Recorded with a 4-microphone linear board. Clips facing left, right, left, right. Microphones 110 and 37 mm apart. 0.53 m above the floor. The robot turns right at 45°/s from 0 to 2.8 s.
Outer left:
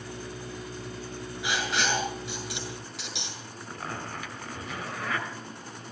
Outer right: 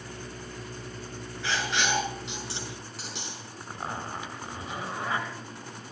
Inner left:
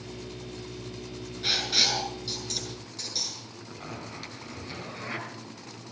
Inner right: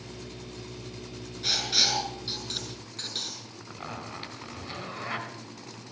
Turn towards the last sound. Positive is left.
turn(degrees=-25)  # may be behind; listen again after turning